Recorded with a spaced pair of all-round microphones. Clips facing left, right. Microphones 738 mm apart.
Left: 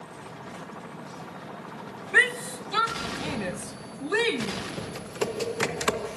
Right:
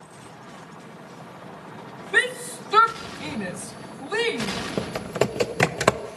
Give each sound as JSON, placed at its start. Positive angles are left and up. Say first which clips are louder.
{"t": 2.1, "sound": "a shout", "louder": "right 2 dB", "side_deg": -60, "distance_m": 0.9}
{"t": 4.8, "sound": "typing on a keyboard", "louder": "right 8 dB", "side_deg": -80, "distance_m": 1.0}